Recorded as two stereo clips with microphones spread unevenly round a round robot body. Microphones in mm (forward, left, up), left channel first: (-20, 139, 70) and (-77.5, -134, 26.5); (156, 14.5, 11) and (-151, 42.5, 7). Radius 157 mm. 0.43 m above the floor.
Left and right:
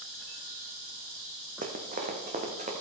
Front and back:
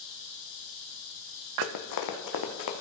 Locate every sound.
1.6 s running footsteps: 35° right, 1.2 m; by 2.7 s 30° right, 1.8 m